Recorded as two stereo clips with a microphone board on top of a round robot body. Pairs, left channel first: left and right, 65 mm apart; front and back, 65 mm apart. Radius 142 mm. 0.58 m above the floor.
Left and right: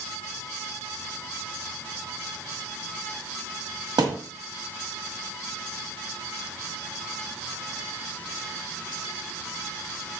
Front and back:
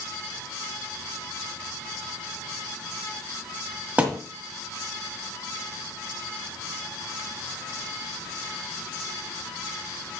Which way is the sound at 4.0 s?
110° right.